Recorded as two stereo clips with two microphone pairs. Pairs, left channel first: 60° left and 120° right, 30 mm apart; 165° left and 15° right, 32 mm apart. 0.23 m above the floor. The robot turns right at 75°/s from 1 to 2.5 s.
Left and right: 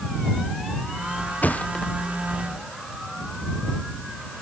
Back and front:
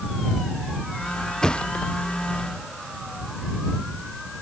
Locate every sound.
1.4 s a thud: 95° left; by 1.9 s 135° left